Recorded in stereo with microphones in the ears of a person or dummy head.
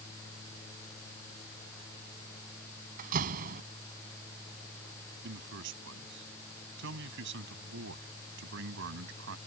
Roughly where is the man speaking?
Right.